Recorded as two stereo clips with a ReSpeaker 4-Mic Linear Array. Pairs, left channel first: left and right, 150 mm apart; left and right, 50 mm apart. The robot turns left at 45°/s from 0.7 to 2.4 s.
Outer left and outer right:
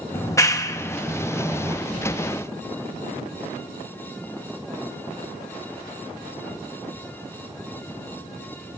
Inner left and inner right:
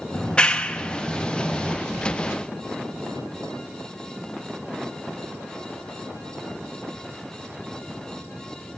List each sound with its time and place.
0.1 s a clap: 20° left (ahead or behind), 0.8 m; by 1.8 s 20° right (ahead or behind), 0.8 m